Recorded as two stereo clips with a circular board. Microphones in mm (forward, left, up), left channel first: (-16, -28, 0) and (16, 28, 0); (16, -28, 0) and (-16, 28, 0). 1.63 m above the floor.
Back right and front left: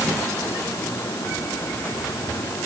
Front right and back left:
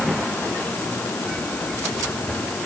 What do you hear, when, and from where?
Only background noise.